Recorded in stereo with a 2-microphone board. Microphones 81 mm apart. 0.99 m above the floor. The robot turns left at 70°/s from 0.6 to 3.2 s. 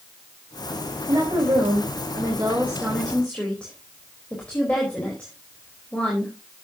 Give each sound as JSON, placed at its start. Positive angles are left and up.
{"t": 1.1, "sound": "a woman speaking", "azimuth_deg": -45, "distance_m": 4.0}